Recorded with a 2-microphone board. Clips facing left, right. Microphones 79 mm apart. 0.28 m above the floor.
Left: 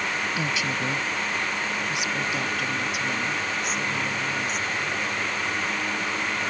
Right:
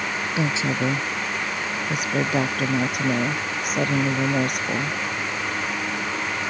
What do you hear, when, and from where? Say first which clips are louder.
0.4 s a woman speaking: right 4 dB; 25° right (ahead or behind); by 5.0 s 65° right (ahead or behind)